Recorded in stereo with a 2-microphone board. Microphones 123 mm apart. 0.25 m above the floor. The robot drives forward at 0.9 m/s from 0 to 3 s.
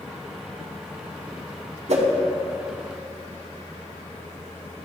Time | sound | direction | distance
1.9 | a whoosh | 60° right (ahead or behind) | 0.6 m